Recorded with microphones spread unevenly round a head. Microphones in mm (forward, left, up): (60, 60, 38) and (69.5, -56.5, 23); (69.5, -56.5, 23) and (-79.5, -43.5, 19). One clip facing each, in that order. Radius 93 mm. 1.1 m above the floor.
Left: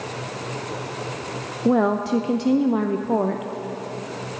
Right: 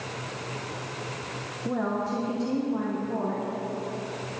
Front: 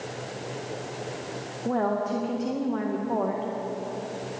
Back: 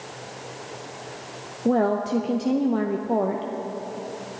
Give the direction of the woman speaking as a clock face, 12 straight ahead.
8 o'clock.